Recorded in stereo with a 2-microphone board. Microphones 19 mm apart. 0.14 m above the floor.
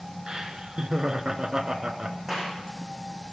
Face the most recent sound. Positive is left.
turn(degrees=-20)  # may be behind; listen again after turning